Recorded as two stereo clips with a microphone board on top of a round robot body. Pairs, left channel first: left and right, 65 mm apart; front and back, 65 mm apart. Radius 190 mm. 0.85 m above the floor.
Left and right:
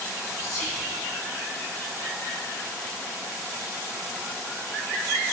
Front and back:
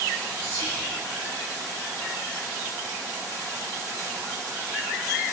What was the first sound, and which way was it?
Whispering, 175° left.